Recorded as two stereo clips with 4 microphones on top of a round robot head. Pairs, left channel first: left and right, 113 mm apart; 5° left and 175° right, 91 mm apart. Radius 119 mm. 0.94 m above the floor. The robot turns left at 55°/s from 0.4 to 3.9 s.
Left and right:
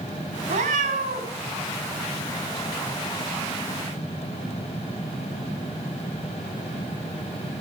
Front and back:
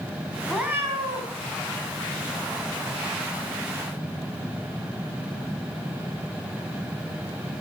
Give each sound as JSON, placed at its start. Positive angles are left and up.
{"t": 0.5, "sound": "a cat meowing", "azimuth_deg": -85, "distance_m": 1.3}